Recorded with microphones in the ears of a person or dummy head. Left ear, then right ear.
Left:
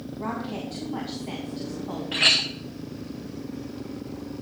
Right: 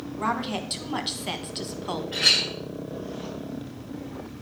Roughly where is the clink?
Left.